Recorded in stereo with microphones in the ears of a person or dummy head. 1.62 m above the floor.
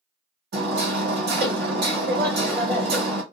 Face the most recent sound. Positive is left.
turn(degrees=-55)  # may be behind; listen again after turning